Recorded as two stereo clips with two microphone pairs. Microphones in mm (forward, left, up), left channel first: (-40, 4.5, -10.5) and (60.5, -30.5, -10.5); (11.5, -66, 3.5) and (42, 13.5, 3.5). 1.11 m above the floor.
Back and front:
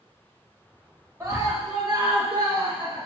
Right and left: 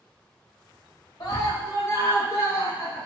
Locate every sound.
1.2 s a scream: 80° right, 2.5 m; by 3.1 s 55° right, 4.5 m